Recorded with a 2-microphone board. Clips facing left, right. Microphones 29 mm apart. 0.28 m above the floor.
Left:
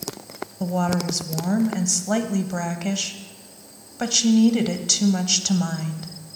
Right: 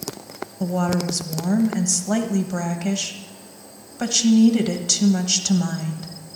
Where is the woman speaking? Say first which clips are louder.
Right 1 dB; 5° left (ahead or behind), 1.2 m.